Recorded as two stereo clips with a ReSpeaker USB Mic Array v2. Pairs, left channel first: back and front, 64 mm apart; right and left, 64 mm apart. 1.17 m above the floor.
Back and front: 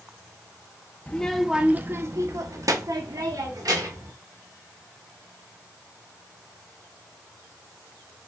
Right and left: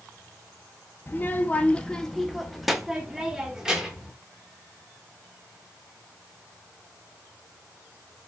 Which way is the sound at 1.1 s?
120° right.